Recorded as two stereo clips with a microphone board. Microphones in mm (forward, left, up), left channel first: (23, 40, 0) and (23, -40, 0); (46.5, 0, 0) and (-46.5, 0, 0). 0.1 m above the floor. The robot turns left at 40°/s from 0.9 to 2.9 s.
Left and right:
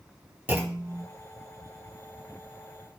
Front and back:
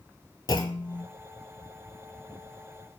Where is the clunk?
30° right, 0.5 m; by 1.1 s 35° right, 0.5 m.